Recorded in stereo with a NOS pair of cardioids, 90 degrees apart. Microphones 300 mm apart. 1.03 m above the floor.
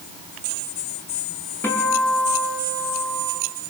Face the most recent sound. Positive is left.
turn(degrees=5)